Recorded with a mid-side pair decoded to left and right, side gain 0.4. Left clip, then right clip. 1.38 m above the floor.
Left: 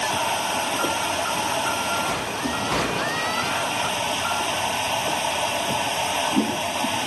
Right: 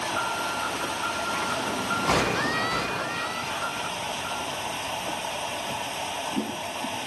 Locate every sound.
0.0 s a machine running: 55° left